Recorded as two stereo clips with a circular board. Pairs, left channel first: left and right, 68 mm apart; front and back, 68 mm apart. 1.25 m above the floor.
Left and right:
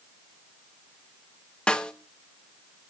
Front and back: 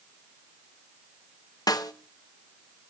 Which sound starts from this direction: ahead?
A snare drum, at 1.7 s.